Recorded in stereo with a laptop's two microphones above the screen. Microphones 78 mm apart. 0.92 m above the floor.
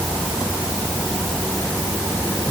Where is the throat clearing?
I don't hear throat clearing.